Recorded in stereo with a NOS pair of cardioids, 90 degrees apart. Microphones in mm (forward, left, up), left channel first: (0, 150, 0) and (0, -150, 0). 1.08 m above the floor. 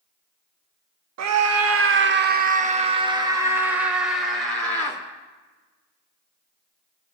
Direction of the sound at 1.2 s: 65° right.